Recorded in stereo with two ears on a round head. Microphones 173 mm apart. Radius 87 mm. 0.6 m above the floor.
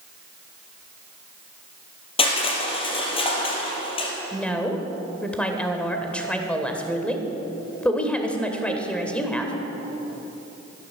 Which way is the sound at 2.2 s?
30° left (ahead or behind).